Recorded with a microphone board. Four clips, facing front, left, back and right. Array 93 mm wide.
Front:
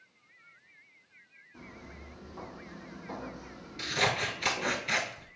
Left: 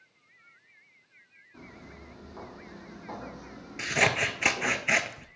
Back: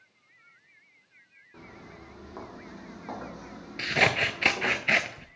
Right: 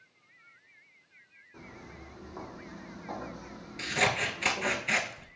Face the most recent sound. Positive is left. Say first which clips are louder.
# left 3 dB, back 5 dB
turn(degrees=150)